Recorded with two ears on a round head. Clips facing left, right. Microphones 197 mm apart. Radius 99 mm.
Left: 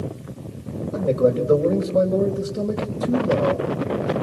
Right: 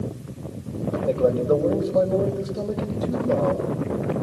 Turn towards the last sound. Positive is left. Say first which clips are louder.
# left 2 dB
turn(degrees=25)  # may be behind; listen again after turning